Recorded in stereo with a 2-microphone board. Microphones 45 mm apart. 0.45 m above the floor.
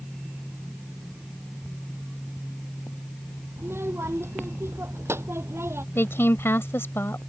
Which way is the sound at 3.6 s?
70° right (ahead or behind).